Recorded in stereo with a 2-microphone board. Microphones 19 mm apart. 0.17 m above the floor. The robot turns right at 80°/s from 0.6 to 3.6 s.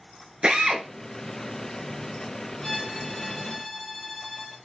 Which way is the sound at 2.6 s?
75° left.